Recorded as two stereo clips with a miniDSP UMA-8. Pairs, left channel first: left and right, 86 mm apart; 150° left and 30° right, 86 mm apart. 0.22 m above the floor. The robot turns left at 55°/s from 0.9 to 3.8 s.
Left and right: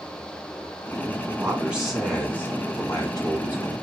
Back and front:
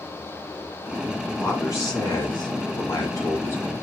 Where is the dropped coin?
I don't hear a dropped coin.